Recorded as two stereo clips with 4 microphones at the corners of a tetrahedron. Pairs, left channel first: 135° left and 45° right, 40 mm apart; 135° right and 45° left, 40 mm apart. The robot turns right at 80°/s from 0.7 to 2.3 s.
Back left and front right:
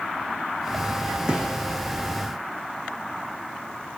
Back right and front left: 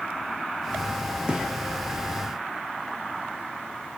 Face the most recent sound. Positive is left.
turn(degrees=90)